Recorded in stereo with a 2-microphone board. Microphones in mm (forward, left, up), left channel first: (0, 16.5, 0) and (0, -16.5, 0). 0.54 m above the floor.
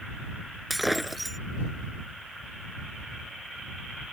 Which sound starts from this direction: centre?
Breaking glass, at 0.7 s.